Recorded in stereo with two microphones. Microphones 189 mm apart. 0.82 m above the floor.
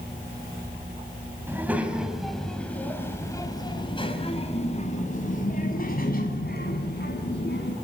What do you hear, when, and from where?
1.5 s a child speaking: 10° right (ahead or behind), 3.5 m; by 7.7 s 65° left (ahead or behind), 5 m